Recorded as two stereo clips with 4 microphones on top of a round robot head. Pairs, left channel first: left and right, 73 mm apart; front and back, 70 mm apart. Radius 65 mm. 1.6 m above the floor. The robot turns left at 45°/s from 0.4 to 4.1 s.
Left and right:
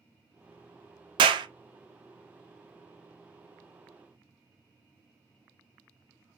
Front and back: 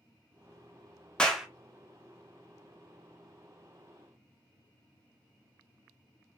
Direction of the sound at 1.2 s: 80° right.